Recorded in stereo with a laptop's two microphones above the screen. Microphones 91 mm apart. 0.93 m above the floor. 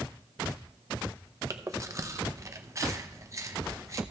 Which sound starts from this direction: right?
Chewing, at 1.5 s.